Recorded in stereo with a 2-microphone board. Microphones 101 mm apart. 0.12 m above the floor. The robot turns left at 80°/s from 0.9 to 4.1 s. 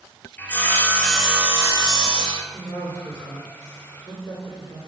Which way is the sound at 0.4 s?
20° left.